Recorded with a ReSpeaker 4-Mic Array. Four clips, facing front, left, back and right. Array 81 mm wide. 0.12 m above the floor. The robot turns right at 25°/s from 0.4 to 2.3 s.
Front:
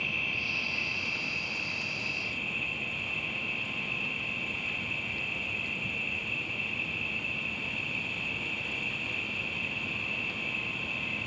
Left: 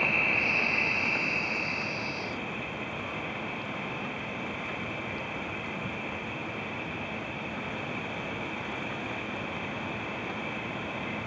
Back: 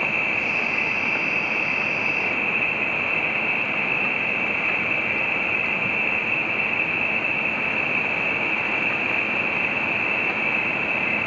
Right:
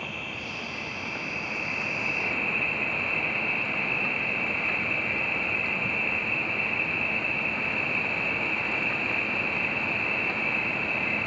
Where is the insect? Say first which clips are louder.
Left 7 dB, back 11 dB; 150° left; by 11.3 s 160° right.